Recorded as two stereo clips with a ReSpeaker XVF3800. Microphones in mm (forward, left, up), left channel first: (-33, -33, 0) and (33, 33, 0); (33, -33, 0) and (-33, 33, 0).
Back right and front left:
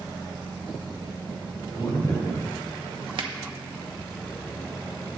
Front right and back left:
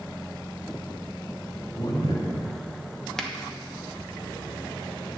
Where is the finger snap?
40° left, 0.8 m.